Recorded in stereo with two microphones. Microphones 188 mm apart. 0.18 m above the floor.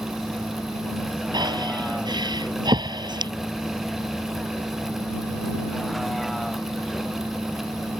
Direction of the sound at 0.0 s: Centre (ahead or behind).